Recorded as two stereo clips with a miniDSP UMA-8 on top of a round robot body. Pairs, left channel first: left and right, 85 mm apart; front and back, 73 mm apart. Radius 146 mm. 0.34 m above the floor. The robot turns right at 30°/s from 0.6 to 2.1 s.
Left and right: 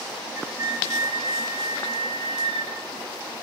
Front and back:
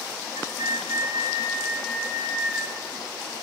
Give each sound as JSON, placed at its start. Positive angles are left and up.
{"t": 0.3, "sound": "a flute", "azimuth_deg": -150, "distance_m": 7.5}